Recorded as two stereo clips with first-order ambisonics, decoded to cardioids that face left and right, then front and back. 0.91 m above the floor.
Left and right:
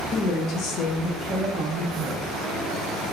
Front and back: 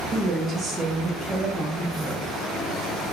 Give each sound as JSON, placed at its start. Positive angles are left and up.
{"t": 0.1, "sound": "a woman speaking", "azimuth_deg": 110, "distance_m": 1.1}